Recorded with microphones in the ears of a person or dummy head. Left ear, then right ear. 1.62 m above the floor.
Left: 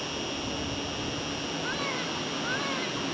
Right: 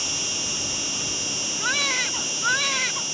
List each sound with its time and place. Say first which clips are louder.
0.0 s an insect: right 7 dB; 50° right (ahead or behind)
1.6 s a baby crying: right 10 dB; 35° right (ahead or behind)